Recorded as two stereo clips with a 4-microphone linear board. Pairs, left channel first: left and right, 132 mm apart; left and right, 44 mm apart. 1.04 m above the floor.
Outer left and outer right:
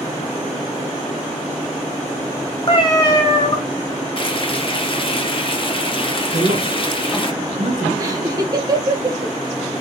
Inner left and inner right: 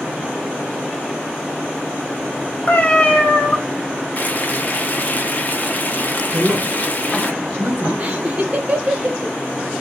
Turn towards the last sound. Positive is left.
turn(degrees=-30)  # may be behind; listen again after turning